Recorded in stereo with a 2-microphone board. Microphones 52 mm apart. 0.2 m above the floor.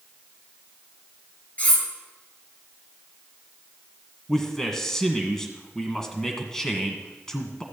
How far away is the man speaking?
About 1.6 m.